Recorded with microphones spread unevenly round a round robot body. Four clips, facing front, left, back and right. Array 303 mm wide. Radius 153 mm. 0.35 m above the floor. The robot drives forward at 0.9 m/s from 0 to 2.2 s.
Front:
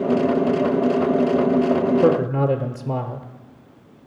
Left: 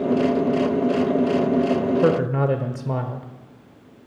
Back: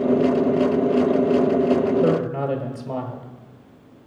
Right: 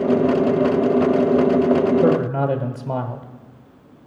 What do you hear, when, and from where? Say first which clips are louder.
2.0 s a man speaking: right 2 dB, front 3 dB; 25° left, 1.0 m; by 3.3 s 35° left, 0.9 m